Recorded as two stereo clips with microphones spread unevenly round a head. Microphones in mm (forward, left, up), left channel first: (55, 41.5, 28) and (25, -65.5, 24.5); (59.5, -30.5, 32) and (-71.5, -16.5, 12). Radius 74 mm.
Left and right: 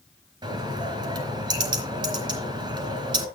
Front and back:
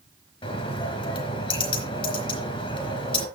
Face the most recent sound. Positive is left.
turn(degrees=-60)